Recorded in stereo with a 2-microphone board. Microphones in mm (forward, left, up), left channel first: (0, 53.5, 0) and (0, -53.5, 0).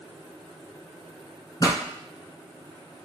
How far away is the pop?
About 1.5 m.